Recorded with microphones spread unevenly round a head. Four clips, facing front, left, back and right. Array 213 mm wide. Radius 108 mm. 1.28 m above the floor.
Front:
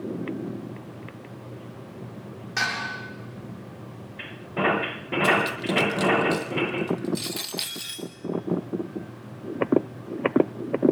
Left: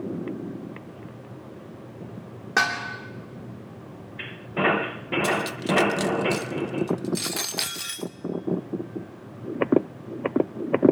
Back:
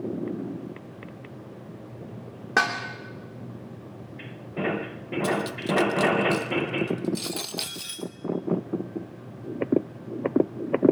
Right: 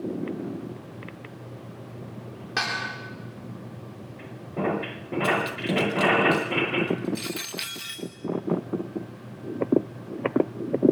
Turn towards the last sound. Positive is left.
turn(degrees=130)